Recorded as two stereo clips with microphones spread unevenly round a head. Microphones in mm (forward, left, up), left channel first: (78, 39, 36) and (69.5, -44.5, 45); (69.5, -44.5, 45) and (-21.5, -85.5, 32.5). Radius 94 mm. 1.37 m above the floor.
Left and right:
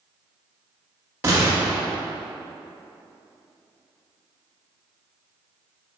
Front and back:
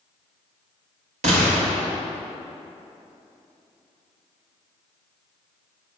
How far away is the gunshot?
About 1.5 m.